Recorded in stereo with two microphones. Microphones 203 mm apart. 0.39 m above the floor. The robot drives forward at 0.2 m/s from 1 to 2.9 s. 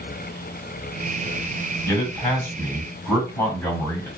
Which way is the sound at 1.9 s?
15° left (ahead or behind).